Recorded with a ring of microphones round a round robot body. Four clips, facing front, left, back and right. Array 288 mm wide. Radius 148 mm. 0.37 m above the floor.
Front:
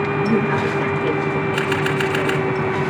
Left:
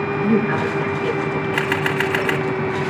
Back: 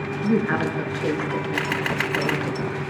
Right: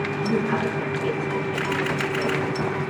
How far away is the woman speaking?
About 6.5 m.